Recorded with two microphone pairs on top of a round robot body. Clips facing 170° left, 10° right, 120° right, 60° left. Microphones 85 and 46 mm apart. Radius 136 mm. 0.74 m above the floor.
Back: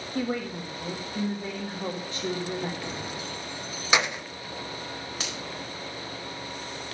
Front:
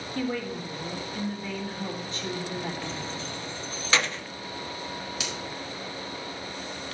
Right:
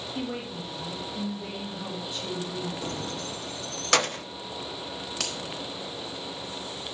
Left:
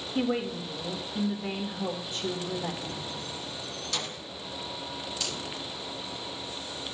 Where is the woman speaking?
130° left, 1.7 m.